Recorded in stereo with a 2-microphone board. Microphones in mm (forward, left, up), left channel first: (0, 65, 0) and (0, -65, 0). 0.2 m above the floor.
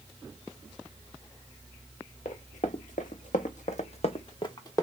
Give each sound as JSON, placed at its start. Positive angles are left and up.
{"t": 2.2, "sound": "running footsteps", "side_deg": 65, "distance_m": 1.1}